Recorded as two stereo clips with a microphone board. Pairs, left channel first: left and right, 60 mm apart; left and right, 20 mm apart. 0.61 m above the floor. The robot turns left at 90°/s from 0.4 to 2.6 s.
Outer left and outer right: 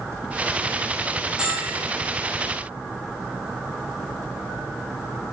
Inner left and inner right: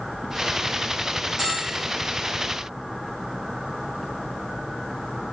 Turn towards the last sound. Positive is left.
turn(degrees=-120)